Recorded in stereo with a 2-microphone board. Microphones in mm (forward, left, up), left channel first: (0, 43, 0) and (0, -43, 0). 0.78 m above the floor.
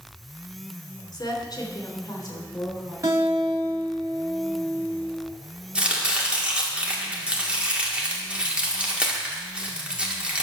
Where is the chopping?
15° right (ahead or behind), 1.9 m.